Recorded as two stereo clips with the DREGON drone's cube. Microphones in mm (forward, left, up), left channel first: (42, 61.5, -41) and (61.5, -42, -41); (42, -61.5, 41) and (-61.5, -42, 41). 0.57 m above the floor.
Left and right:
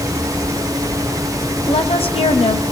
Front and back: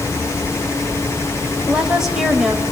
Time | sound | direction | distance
1.7 | a woman speaking | 85° left | 2.5 m